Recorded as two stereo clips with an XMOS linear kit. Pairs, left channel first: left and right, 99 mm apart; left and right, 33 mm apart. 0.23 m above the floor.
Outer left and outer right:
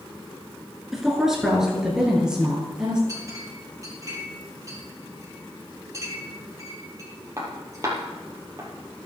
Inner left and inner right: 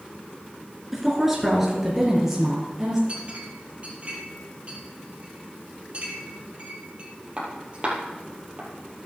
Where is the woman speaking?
5° right (ahead or behind), 3 m; by 3.0 s 10° right (ahead or behind), 4.5 m.